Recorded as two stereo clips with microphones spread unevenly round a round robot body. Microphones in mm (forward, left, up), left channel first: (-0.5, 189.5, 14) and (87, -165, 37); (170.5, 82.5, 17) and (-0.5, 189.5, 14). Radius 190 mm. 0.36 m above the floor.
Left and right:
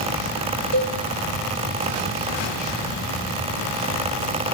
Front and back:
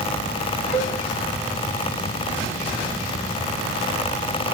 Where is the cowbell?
105° right, 3.5 m.